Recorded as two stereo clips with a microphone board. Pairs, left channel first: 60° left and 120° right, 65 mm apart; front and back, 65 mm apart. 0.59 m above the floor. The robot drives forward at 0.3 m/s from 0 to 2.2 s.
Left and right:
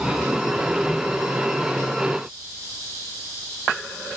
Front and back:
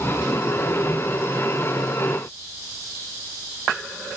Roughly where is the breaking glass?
I don't hear breaking glass.